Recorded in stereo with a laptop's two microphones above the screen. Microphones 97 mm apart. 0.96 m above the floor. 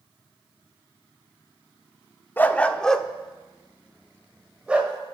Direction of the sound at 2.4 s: 20° left (ahead or behind).